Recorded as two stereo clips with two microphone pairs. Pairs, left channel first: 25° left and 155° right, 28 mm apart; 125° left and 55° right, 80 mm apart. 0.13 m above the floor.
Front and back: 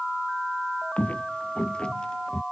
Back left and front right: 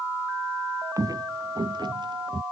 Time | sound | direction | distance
1.0 | footsteps | 5° right | ?